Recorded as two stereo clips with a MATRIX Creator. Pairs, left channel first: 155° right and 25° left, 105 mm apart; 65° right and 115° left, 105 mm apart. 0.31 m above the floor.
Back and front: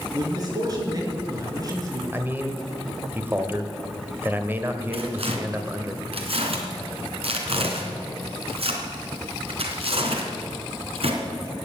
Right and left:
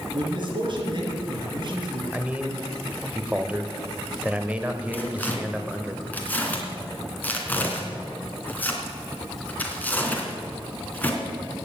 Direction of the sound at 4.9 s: 5° left.